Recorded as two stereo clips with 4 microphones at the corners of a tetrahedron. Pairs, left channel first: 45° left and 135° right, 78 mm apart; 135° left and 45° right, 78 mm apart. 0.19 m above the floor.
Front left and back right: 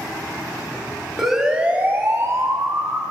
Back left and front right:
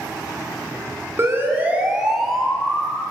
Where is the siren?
50° right, 2 m; by 3.0 s 150° right, 3 m.